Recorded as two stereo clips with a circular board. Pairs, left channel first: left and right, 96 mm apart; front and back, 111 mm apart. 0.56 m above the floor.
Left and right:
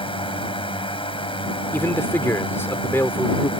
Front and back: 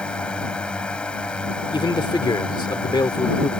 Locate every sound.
0.0 s a drone: 80° left
1.7 s a man speaking: 30° left